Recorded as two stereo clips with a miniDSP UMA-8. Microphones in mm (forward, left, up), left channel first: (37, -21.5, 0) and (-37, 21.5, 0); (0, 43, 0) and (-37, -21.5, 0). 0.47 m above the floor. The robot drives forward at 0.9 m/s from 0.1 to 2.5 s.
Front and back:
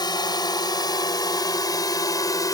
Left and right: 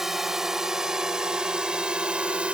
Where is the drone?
35° right; by 2.5 s 50° right.